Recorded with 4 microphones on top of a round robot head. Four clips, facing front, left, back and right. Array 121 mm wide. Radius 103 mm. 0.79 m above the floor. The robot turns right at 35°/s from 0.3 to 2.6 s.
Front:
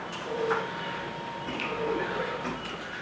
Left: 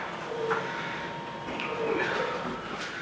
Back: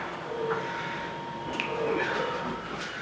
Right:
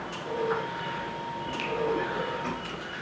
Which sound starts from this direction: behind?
A finger snap, at 1.6 s.